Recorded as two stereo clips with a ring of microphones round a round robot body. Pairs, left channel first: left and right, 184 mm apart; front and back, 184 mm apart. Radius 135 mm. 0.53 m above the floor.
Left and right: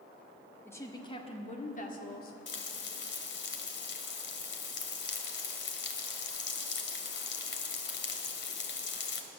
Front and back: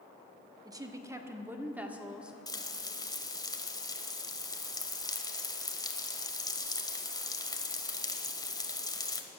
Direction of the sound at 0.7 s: 150° left.